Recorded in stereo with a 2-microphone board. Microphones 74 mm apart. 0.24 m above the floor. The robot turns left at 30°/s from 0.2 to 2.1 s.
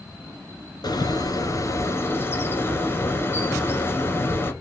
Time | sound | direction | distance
0.8 | a bird | 75° left | 1.5 m